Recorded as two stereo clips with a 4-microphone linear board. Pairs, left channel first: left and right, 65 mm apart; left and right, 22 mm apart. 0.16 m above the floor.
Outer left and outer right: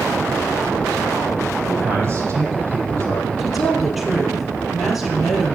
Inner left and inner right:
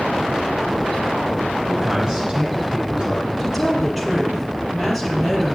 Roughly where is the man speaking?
Right.